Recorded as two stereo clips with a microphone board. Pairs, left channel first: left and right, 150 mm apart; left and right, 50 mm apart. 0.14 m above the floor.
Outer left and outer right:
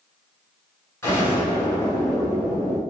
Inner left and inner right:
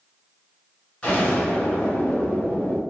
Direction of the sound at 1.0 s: 20° left (ahead or behind).